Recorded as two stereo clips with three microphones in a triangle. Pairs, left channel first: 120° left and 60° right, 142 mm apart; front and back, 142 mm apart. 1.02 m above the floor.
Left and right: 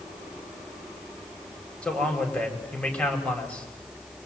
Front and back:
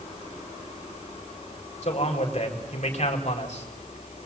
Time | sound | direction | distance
1.8 | a man speaking | 40° left | 5.5 m